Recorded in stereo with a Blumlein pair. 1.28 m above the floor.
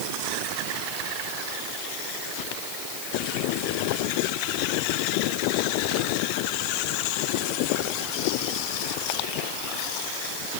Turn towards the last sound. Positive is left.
No sound to turn to.